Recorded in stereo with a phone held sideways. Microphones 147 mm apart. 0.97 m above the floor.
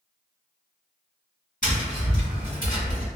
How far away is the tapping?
About 1.7 m.